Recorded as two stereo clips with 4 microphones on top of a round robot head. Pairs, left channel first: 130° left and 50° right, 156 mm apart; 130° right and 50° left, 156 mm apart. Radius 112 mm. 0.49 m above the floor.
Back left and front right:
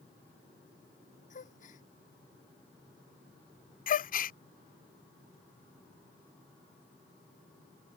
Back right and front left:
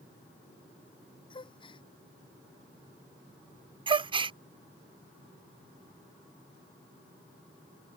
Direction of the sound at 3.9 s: 105° left.